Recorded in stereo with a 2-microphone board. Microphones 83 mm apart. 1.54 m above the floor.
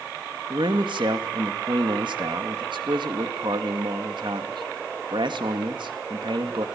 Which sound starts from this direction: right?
A man speaking, at 0.5 s.